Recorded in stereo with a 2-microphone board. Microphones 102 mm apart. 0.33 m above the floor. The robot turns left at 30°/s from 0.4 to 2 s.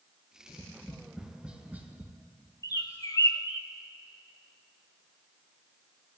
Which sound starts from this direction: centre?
Tapping, at 0.5 s.